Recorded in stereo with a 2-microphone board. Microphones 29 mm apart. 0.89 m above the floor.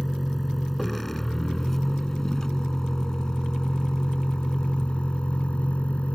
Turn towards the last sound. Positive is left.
turn(degrees=45)  # may be behind; listen again after turning